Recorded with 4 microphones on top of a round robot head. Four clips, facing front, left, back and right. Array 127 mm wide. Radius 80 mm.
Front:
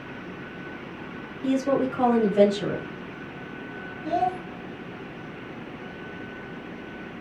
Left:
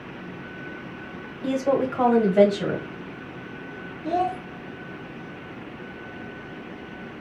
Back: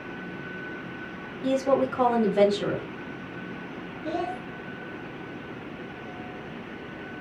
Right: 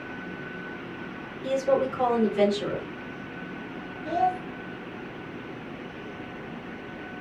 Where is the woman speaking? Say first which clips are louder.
Left 1 dB, even; 105° left, 1.6 m.